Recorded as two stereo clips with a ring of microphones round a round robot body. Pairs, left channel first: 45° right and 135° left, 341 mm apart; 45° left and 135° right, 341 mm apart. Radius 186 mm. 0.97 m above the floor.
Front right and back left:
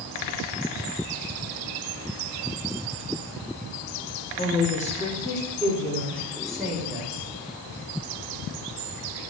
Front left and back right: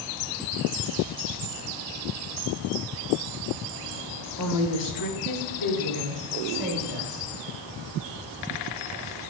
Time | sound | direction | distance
4.4 | a woman speaking | 10° left | 2 m